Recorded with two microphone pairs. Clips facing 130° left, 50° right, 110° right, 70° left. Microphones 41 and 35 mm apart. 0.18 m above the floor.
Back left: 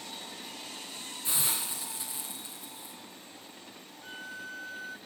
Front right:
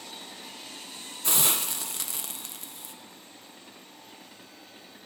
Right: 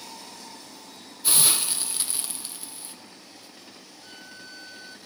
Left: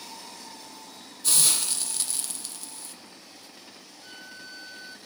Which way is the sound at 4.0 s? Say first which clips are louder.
Back left 8 dB, left 1 dB; 150° left.